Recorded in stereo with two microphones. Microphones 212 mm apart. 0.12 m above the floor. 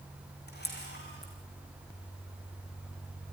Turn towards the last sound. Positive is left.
turn(degrees=50)  # may be behind; listen again after turning